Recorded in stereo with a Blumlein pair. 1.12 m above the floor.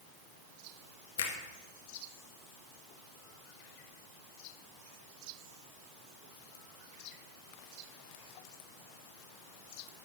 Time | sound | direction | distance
1.2 | a finger snap | 60° left | 1.3 m